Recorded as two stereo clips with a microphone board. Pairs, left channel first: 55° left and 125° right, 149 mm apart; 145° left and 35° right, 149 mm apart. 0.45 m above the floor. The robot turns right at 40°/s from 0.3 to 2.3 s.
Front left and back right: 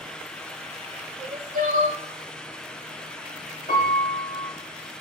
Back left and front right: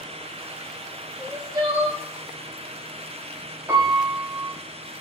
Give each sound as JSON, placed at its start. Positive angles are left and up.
{"t": 1.2, "sound": "crying", "azimuth_deg": -115, "distance_m": 0.6}
{"t": 3.7, "sound": "a piano", "azimuth_deg": 40, "distance_m": 0.7}